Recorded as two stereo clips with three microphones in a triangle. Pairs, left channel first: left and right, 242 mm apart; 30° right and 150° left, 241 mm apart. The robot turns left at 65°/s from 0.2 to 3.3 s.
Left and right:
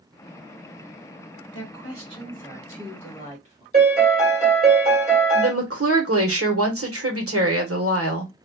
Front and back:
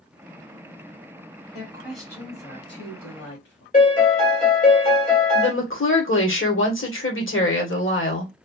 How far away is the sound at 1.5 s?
About 1.9 m.